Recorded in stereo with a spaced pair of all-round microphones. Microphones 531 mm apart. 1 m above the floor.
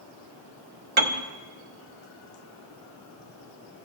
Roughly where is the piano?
Right.